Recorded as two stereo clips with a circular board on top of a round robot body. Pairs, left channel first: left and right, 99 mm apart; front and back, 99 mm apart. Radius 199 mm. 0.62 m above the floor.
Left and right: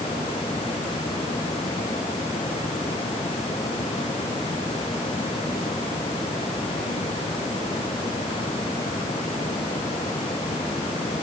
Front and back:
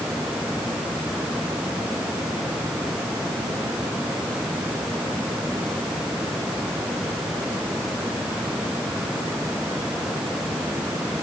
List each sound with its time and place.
Only background noise.